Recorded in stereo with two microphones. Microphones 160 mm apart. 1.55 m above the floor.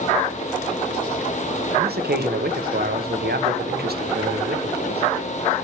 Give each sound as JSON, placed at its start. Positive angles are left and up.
{"t": 1.8, "sound": "a man speaking", "side_deg": -80, "distance_m": 1.1}